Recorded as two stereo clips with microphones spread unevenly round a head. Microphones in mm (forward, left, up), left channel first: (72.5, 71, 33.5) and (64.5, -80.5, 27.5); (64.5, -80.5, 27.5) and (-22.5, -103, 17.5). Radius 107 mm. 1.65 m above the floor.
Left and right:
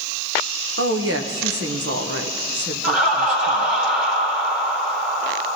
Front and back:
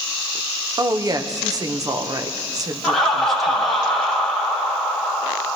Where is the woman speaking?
115° right, 1.2 m.